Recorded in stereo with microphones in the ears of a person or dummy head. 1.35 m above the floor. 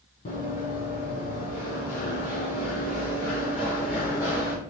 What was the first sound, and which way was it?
Running footsteps, 40° left (ahead or behind).